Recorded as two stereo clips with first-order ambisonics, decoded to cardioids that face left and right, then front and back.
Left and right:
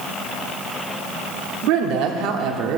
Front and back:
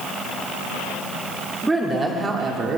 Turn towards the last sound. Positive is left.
turn(degrees=-120)